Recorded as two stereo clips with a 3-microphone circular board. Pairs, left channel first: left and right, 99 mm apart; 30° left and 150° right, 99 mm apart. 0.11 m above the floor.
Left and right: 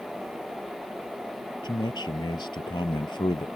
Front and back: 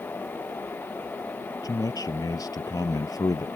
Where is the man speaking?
70° left.